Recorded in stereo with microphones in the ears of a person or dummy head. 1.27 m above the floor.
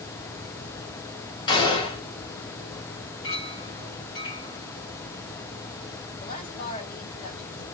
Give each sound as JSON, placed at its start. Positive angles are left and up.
{"t": 1.5, "sound": "a gunshot", "side_deg": 30, "distance_m": 0.7}
{"t": 3.2, "sound": "a clink", "side_deg": 30, "distance_m": 1.1}
{"t": 6.2, "sound": "a woman speaking", "side_deg": 40, "distance_m": 1.1}